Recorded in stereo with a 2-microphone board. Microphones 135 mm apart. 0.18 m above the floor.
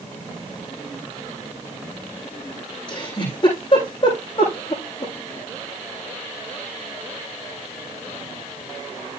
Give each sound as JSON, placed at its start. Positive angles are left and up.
{"t": 2.9, "sound": "a giggle", "side_deg": 40, "distance_m": 8.5}